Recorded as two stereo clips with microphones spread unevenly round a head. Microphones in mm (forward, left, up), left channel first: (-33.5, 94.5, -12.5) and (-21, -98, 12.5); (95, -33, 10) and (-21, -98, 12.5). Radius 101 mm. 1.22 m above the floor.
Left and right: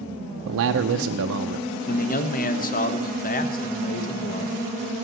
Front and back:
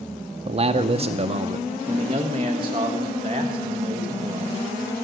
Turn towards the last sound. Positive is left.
turn(degrees=140)